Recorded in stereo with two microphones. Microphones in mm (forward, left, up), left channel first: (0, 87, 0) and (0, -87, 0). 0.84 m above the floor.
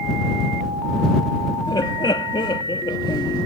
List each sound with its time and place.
1.7 s laughter: 30° left (ahead or behind)